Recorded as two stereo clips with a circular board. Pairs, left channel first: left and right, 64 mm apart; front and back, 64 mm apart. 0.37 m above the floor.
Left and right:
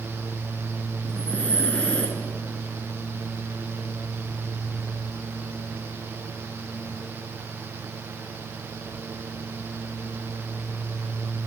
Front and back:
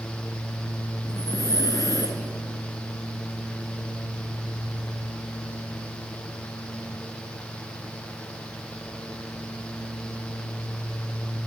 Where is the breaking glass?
I don't hear breaking glass.